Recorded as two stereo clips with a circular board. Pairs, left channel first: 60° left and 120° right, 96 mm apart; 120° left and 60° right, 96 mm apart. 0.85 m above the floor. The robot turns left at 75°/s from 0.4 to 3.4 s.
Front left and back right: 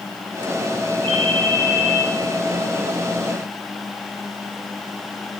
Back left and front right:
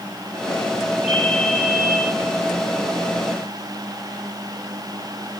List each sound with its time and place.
1.0 s a ringtone: 145° right, 3.5 m; by 2.0 s 145° left, 3.5 m